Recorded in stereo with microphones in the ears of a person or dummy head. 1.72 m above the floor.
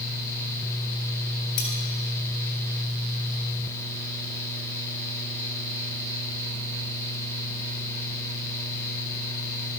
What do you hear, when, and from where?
1.6 s cutlery clinking: 55° left (ahead or behind), 3 m